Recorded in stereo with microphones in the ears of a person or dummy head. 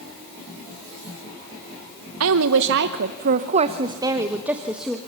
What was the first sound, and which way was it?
A woman speaking, 85° right.